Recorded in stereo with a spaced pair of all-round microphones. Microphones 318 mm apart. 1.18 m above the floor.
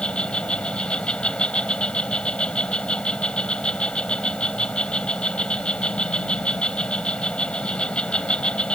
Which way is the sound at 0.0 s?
5° left (ahead or behind).